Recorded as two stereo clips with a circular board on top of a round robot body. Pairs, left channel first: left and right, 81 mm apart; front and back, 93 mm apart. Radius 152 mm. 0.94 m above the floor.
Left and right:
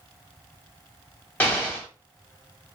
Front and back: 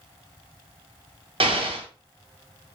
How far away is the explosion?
About 1.2 m.